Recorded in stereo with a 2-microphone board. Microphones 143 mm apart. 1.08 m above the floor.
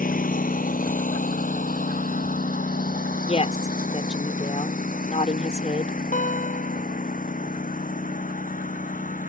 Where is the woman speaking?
50° left (ahead or behind).